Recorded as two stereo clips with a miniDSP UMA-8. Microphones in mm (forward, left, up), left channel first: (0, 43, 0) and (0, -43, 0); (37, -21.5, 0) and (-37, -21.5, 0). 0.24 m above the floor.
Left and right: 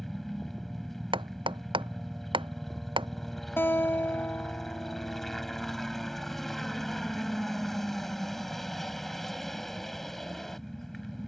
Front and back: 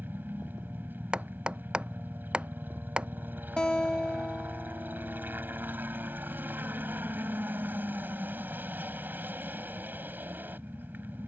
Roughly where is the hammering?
Right.